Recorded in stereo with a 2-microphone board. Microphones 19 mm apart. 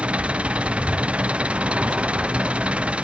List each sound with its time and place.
0.0 s an engine running: 85° right